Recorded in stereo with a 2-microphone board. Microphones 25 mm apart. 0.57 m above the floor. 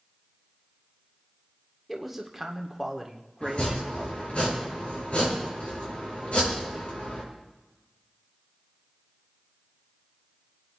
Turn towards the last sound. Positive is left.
turn(degrees=60)  # may be behind; listen again after turning